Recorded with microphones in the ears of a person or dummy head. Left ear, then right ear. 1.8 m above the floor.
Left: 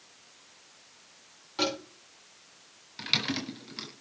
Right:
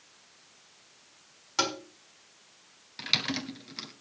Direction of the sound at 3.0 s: 10° right (ahead or behind).